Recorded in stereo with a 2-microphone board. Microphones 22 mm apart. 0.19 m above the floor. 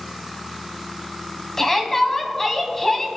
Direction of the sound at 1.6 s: 20° left (ahead or behind).